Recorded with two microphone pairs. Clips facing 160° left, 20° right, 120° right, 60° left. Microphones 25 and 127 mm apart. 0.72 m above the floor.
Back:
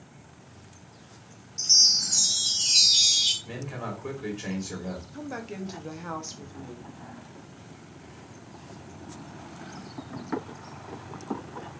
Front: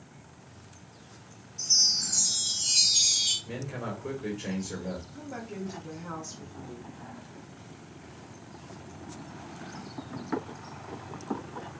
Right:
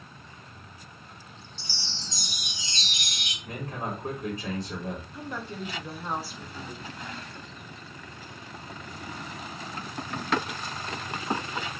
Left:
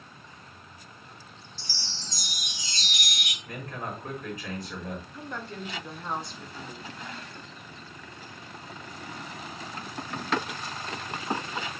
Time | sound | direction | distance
1.6 | a chime | 170° left | 0.7 m
3.4 | a man speaking | 175° right | 1.9 m
5.1 | a woman speaking | 155° left | 0.7 m